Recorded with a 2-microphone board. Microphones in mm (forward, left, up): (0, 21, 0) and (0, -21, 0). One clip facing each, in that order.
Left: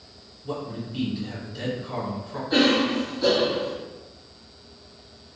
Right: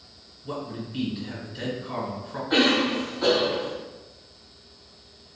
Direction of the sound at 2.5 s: 45° right (ahead or behind).